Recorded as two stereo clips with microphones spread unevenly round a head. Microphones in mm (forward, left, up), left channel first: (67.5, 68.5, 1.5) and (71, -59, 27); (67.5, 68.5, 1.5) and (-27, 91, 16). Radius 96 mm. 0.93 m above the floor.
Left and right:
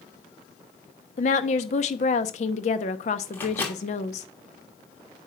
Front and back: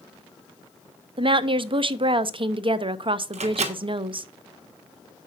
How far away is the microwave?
About 1.1 m.